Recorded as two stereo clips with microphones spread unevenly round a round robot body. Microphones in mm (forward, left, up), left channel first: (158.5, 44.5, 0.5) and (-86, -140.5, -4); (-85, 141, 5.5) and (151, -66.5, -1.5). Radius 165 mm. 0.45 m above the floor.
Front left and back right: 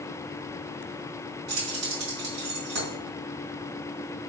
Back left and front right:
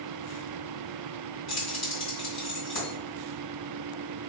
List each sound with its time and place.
1.5 s keys jangling: 165° right, 2 m